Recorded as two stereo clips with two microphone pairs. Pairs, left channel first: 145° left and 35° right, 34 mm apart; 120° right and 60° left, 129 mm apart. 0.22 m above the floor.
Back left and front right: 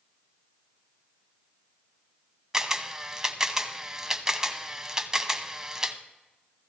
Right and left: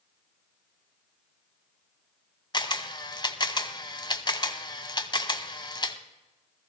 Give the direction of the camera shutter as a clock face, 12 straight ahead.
3 o'clock.